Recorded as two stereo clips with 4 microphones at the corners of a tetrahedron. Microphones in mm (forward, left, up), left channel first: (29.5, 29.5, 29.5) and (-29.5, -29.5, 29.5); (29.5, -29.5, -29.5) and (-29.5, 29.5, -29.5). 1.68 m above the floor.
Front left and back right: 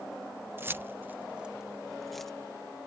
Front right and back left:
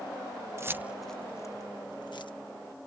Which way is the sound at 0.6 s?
175° left.